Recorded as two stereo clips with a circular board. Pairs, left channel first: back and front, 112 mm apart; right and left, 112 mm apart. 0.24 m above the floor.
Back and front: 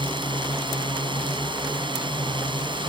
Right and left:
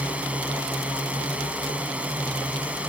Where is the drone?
15° left.